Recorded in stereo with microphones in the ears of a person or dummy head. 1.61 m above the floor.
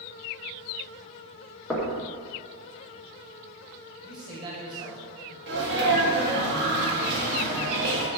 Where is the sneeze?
55° right (ahead or behind), 1.7 m.